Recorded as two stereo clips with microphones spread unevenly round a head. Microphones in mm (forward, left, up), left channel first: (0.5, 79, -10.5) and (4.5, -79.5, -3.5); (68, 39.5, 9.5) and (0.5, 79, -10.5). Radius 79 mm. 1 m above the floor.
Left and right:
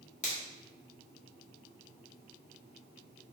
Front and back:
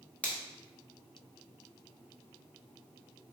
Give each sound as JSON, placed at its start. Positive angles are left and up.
{"t": 0.2, "sound": "a finger snap", "azimuth_deg": 45, "distance_m": 1.7}